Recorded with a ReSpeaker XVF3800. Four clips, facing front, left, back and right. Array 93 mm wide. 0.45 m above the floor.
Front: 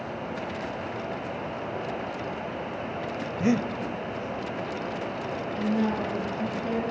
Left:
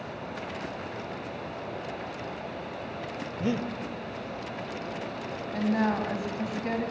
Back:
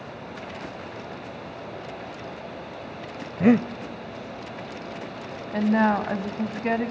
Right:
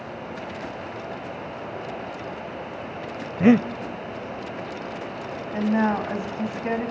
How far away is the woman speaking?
About 2.5 m.